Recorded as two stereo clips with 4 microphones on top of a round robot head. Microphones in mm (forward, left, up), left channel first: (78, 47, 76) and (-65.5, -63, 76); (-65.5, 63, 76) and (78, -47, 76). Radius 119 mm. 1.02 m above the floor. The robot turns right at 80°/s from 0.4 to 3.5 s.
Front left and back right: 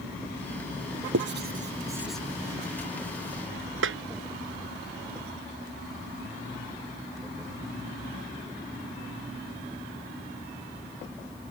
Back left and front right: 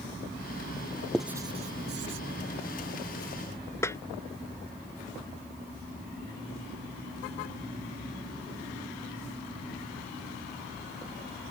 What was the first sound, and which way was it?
Writing, 130° right.